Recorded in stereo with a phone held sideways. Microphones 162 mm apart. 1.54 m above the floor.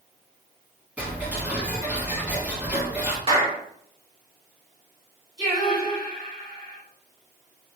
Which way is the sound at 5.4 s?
Centre (ahead or behind).